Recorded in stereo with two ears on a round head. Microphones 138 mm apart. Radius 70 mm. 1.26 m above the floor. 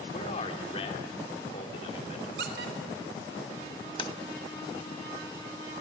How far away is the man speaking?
About 3 m.